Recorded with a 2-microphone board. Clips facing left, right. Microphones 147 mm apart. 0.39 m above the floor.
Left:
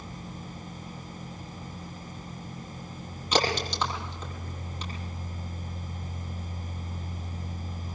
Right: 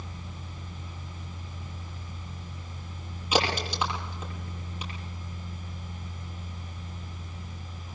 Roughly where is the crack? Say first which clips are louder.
Even; centre.